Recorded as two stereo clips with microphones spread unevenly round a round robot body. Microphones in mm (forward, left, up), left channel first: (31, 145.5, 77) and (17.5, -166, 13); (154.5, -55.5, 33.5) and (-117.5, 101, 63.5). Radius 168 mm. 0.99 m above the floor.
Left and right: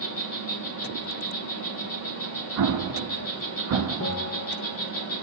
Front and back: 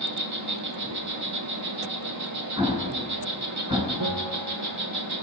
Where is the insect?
135° left, 1.9 m.